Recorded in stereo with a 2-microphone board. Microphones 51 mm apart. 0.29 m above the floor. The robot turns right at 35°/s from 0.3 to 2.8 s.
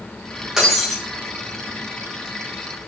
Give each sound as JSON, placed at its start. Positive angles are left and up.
{"t": 0.6, "sound": "breaking glass", "side_deg": -10, "distance_m": 5.5}